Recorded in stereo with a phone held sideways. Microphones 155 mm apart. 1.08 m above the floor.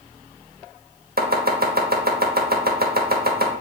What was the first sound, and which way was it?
Chopping, 75° right (ahead or behind).